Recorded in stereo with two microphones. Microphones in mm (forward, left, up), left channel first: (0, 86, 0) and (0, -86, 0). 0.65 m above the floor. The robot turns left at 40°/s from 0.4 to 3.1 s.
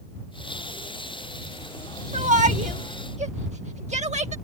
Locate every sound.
2.1 s a shout: 45° right (ahead or behind)